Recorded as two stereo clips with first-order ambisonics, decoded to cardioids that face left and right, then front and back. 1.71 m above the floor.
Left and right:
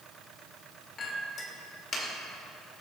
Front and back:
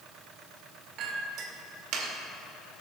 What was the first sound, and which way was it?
A clink, 150° left.